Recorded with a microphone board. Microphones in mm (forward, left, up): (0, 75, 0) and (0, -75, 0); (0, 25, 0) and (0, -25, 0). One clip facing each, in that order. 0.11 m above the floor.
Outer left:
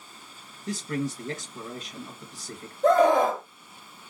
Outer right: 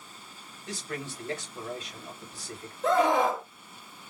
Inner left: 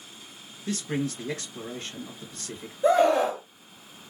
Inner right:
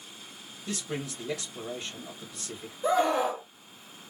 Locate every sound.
0.7 s a man speaking: 40° left (ahead or behind), 1.9 m
2.8 s a scream: 45° left (ahead or behind), 2 m